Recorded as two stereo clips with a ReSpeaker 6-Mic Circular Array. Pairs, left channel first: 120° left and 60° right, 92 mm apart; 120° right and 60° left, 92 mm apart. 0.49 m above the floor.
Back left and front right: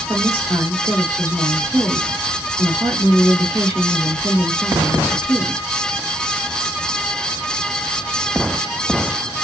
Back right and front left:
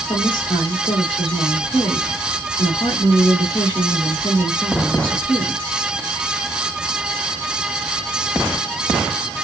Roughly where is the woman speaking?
Right.